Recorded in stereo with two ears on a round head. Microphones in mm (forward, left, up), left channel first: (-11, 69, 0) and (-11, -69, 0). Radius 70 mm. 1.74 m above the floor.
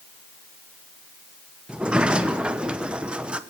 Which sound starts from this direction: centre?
A sliding door, at 1.7 s.